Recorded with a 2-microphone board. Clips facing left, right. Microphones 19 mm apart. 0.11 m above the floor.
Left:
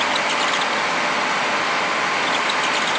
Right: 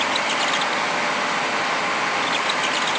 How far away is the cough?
No cough in this recording.